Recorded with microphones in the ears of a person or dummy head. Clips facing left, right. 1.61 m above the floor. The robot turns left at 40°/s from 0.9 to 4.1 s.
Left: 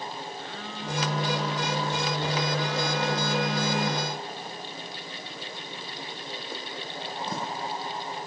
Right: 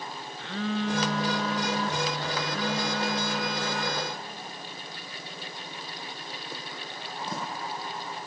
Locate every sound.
0.4 s a phone buzzing: 80° right, 1.0 m; by 4.1 s 155° left, 1.0 m